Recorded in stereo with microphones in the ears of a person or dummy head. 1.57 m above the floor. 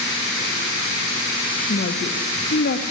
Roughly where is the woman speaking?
Left.